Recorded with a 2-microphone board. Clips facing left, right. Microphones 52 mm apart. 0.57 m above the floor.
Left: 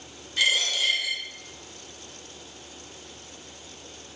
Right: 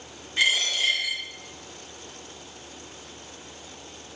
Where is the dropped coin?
25° right (ahead or behind), 1.9 m.